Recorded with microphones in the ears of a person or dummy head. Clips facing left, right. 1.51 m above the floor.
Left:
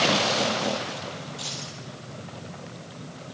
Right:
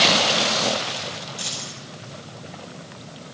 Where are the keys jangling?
30° right (ahead or behind), 7 m.